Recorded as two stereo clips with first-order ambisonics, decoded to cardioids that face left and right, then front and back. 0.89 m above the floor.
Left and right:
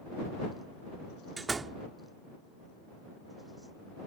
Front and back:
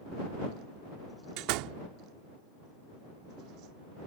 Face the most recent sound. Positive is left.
turn(degrees=-165)